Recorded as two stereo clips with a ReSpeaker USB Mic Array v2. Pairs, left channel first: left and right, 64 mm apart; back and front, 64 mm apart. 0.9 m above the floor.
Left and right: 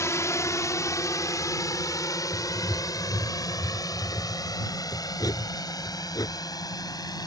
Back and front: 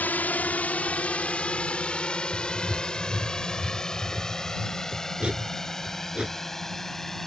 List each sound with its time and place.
0.0 s a drone: 120° left; by 7.3 s 95° left
2.3 s writing: 70° left